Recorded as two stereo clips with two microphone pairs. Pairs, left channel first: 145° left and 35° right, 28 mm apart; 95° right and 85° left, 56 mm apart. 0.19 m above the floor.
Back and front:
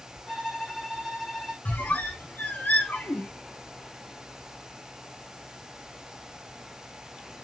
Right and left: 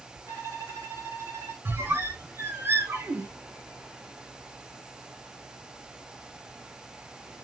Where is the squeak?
130° left, 1.3 m.